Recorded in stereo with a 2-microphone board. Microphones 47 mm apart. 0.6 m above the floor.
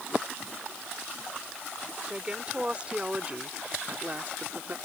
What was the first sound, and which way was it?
A woman speaking, 20° right (ahead or behind).